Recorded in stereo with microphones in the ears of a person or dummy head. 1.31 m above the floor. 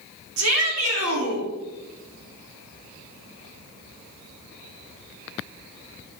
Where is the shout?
85° right, 3.5 m.